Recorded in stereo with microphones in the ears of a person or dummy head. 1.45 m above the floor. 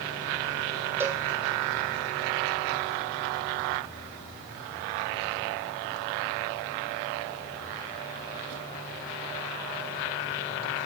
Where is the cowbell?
15° right (ahead or behind), 0.7 m.